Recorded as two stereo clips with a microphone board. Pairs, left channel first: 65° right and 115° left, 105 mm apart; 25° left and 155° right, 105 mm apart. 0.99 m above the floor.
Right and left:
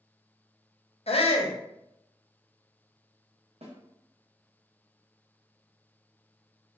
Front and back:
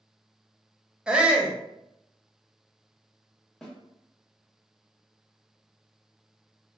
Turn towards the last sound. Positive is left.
turn(degrees=105)